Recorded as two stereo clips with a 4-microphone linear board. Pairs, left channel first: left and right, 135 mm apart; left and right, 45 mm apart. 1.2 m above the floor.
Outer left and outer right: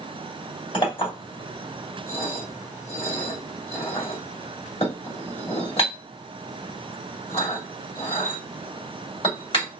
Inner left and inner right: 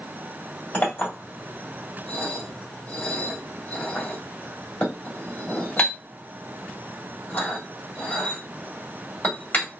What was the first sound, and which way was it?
A clink, 40° left (ahead or behind).